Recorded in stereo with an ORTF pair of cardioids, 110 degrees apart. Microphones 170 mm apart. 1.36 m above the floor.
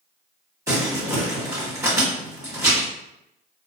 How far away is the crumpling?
About 1.7 m.